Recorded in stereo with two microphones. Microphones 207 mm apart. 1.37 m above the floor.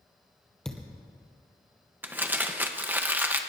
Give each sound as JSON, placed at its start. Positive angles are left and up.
{"t": 0.7, "sound": "a thud", "side_deg": 5, "distance_m": 2.0}
{"t": 2.0, "sound": "crumpling", "side_deg": -10, "distance_m": 1.0}